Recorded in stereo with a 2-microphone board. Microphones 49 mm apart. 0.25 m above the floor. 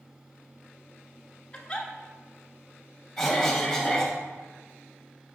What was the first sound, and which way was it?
A giggle, 20° left (ahead or behind).